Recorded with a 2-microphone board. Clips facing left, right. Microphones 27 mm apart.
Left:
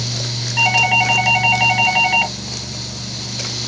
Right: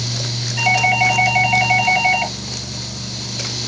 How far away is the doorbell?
About 2.5 m.